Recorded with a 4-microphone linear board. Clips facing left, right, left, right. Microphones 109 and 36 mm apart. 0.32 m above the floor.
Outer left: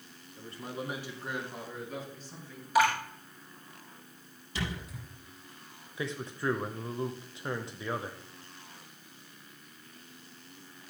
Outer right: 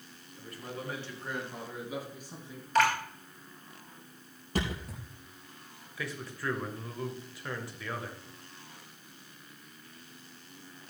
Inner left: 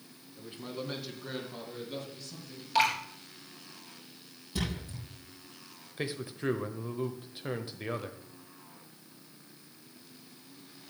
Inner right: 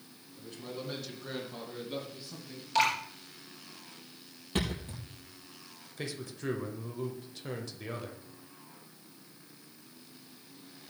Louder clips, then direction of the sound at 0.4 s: Outer left 2 dB, inner left 2 dB; 30° left (ahead or behind).